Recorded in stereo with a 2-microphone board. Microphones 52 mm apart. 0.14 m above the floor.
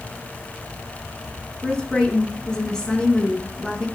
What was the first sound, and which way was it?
A woman speaking, 10° left (ahead or behind).